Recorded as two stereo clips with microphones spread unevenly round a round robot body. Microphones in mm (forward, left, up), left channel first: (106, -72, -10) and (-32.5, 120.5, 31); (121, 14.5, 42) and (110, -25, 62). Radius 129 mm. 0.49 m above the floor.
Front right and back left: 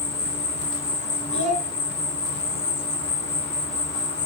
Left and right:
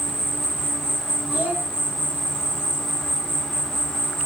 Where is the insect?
5° left, 0.8 m.